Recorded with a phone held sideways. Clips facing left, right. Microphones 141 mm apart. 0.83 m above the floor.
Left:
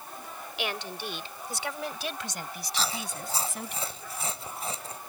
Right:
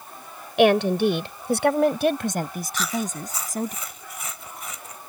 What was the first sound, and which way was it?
A woman speaking, 80° right.